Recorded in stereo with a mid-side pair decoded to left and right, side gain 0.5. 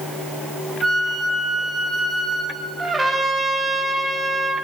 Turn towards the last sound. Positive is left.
turn(degrees=-20)